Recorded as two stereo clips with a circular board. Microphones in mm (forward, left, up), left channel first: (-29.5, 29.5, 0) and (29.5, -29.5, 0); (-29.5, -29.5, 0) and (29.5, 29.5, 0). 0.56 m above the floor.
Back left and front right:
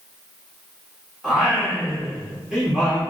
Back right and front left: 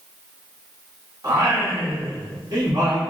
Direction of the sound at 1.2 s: 40° left.